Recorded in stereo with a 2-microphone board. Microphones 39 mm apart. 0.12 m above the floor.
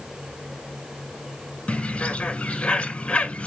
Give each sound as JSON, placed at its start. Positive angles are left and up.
{"t": 1.7, "sound": "a bird", "side_deg": 30, "distance_m": 1.1}